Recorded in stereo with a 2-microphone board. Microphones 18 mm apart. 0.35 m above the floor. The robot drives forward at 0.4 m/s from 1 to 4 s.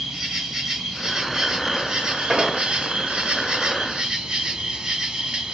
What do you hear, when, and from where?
0.0 s an insect: 40° right (ahead or behind), 0.9 m; by 5.5 s 50° right (ahead or behind), 0.7 m
2.3 s an explosion: 25° right (ahead or behind), 0.7 m; by 2.6 s 30° right (ahead or behind), 0.6 m